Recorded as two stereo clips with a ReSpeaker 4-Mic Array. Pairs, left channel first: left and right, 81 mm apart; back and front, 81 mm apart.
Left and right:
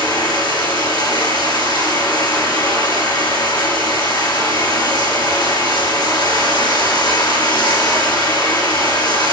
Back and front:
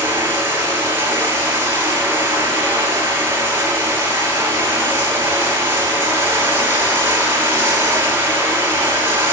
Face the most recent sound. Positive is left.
turn(degrees=60)